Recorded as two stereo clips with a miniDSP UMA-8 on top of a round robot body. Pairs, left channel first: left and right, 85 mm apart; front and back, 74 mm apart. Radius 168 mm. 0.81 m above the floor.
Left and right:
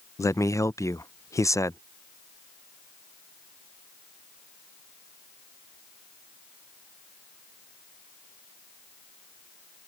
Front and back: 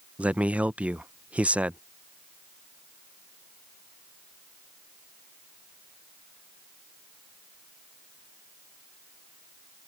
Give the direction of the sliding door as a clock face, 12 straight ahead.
No sliding door in this recording.